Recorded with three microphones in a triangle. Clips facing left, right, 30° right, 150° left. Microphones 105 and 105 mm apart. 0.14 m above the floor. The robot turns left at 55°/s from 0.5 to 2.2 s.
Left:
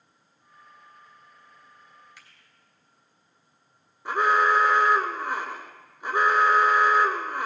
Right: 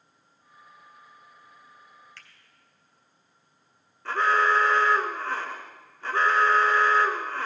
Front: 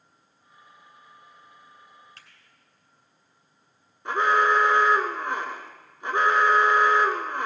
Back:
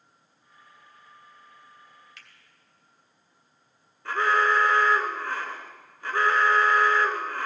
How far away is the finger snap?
About 3 m.